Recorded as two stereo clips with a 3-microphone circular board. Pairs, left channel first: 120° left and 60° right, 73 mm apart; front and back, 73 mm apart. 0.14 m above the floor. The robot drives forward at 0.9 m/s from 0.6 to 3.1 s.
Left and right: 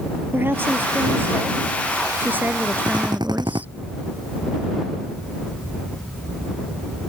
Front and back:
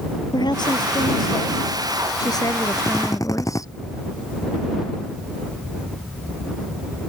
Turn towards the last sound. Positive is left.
turn(degrees=-40)